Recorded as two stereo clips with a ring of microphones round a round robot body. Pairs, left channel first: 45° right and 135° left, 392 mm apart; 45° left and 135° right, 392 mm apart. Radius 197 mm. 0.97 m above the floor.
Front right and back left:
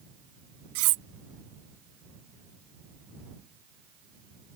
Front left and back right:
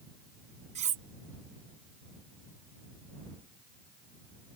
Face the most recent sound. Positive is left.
turn(degrees=150)